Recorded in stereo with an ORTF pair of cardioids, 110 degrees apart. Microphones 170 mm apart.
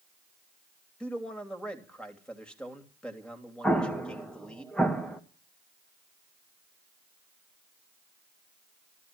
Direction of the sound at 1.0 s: 5° left.